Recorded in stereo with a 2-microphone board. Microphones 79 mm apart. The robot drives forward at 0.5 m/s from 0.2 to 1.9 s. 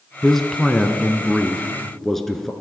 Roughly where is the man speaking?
Centre.